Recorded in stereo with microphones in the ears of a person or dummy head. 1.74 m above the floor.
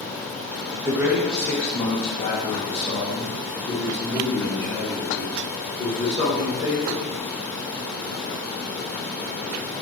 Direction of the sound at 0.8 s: 15° right (ahead or behind).